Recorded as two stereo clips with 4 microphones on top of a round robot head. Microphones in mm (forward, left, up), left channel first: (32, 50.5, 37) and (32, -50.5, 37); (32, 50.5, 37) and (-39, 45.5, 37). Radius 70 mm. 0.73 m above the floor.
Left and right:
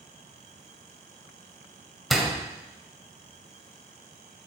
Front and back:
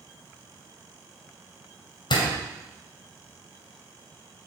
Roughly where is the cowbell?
No cowbell in this recording.